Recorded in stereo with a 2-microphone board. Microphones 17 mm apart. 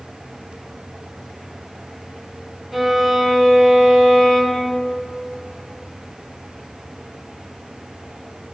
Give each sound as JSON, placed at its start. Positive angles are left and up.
{"t": 2.7, "sound": "a violin", "side_deg": -5, "distance_m": 1.0}